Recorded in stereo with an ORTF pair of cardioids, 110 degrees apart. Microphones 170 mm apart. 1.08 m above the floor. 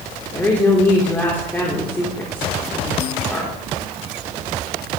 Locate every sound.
0.3 s a woman speaking: 10° left, 2.5 m